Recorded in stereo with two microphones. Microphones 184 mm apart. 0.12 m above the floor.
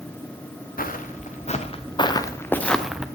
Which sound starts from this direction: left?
Footsteps, at 0.8 s.